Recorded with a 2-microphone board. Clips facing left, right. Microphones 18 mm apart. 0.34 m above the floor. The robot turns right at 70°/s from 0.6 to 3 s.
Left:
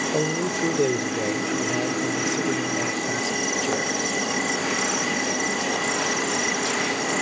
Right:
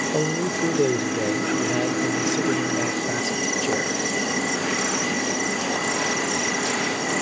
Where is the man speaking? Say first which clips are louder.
Right 1 dB; 10° left (ahead or behind), 0.8 m; by 4.0 s 10° right (ahead or behind), 0.8 m.